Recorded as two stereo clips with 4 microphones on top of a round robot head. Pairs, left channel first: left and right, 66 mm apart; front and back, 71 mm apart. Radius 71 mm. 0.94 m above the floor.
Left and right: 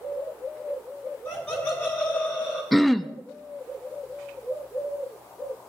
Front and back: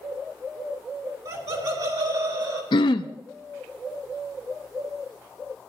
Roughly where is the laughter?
Behind.